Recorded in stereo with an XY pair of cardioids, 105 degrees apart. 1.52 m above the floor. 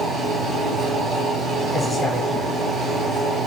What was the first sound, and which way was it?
A fan, 60° right.